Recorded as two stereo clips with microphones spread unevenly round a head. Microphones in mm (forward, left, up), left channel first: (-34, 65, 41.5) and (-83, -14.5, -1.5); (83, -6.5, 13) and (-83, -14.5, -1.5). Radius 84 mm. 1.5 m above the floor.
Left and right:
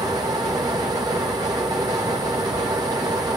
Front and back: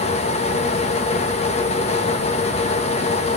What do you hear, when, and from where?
0.0 s a fan: 50° right, 1.7 m